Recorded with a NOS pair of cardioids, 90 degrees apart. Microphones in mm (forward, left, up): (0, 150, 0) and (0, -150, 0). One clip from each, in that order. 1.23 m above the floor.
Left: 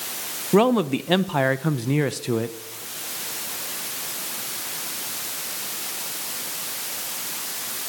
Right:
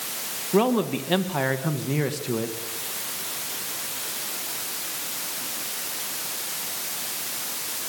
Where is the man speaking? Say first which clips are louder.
Left 3 dB; 55° left, 1.1 m.